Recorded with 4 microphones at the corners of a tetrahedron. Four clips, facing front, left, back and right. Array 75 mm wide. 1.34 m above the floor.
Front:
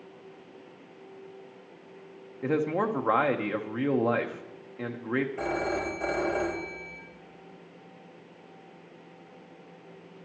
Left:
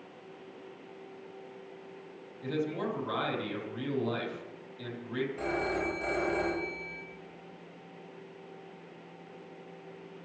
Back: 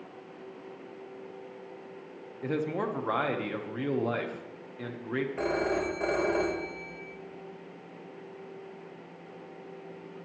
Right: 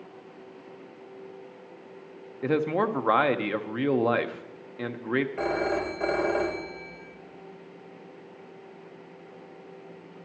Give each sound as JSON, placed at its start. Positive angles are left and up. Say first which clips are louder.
{"t": 2.4, "sound": "a man speaking", "louder": "right 8 dB, front 4 dB", "azimuth_deg": -65, "distance_m": 1.0}
{"t": 5.4, "sound": "a phone ringing", "louder": "right 5 dB, back 1 dB", "azimuth_deg": -125, "distance_m": 3.5}